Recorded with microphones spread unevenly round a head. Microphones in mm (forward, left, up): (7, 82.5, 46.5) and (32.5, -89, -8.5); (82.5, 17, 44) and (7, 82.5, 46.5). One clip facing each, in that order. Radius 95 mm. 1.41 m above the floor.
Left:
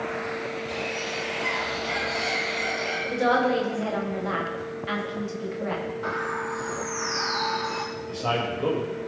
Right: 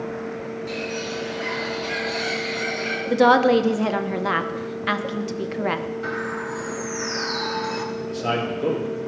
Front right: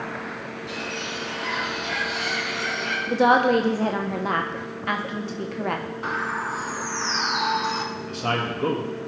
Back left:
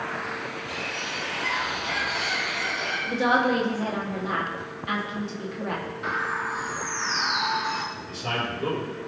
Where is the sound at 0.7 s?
85° right, 3.5 m.